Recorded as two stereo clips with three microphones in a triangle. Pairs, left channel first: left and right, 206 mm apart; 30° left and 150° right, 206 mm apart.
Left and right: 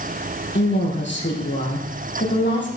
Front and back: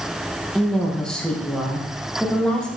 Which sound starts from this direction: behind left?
A woman speaking, at 0.6 s.